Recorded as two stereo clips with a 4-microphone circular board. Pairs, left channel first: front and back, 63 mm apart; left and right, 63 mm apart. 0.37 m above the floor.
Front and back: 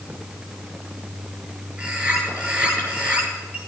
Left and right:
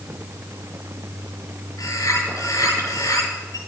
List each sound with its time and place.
1.8 s a bird: 110° left, 8 m